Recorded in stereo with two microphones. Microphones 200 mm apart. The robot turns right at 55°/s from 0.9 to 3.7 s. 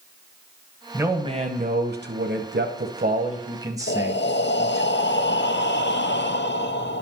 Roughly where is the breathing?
Left.